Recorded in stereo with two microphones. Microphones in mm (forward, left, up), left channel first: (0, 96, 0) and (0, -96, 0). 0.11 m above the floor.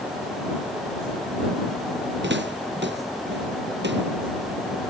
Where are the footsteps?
75° right (ahead or behind).